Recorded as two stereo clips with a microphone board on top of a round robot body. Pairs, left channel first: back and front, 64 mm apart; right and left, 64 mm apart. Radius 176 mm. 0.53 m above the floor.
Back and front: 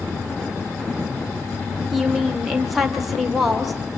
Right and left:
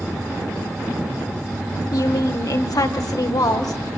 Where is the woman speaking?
85° right, 2.0 m.